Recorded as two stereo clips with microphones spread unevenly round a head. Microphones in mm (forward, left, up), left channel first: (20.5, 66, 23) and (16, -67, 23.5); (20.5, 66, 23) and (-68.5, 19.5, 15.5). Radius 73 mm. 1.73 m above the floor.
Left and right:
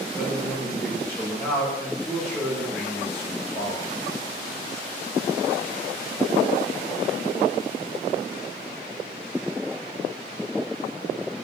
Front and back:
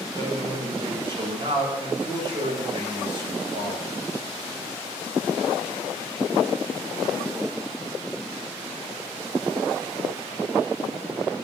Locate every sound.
0.1 s a man speaking: 165° left, 9 m